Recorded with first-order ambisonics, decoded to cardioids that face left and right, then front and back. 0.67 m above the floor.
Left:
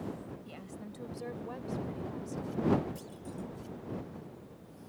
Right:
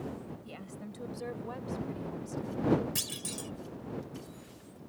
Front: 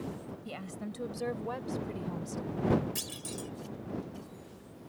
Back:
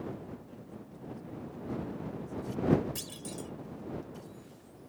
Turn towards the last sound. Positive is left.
turn(degrees=-80)